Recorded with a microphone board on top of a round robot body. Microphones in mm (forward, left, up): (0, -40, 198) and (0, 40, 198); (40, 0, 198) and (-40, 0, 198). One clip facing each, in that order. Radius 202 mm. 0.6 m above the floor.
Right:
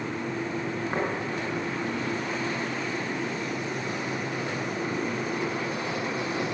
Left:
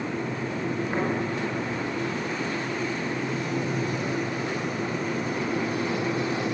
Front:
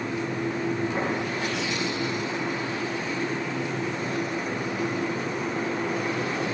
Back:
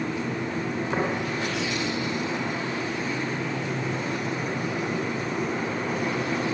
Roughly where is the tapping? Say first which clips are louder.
Even, back 2 dB; behind right.